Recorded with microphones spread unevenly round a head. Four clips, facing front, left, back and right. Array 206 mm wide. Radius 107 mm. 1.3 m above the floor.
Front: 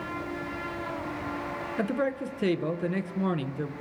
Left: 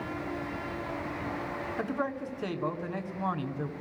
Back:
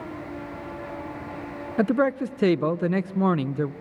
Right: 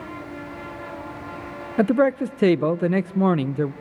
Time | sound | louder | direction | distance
1.8 | a man speaking | right 16 dB, back 7 dB | 110° right | 0.8 m